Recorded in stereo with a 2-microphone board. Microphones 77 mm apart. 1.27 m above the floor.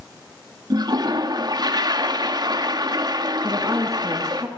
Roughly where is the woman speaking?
Right.